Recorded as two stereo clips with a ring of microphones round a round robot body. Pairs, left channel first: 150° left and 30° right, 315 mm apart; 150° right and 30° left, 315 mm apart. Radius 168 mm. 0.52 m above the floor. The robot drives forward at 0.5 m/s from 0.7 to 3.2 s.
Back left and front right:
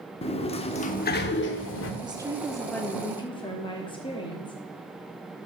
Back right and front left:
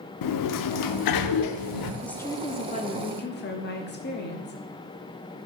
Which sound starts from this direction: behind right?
A sliding door, at 0.2 s.